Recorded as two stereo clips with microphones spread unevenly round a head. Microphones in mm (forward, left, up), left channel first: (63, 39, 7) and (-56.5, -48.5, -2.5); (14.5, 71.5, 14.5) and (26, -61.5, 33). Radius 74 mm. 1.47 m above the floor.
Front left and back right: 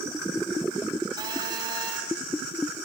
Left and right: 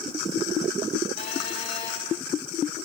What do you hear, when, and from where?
1.2 s a phone buzzing: 150° left, 6 m